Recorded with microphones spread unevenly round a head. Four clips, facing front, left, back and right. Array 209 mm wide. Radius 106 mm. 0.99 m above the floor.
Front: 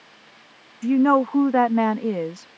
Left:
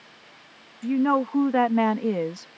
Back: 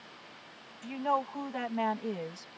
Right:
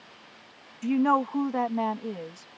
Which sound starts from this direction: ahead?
A woman speaking, at 0.8 s.